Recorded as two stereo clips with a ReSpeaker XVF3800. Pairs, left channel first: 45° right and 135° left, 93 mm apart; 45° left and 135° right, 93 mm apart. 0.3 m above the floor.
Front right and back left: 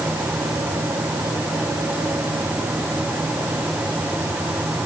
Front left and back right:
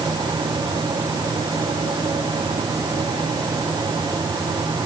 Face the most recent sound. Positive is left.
No sound to turn to.